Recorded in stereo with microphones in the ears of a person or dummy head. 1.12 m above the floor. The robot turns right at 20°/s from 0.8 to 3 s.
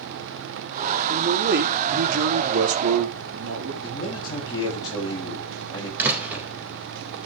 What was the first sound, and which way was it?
A man speaking, 130° right.